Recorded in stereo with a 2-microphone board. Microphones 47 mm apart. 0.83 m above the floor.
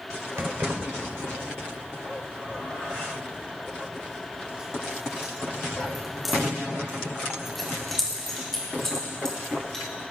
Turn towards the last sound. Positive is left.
turn(degrees=10)  # may be behind; listen again after turning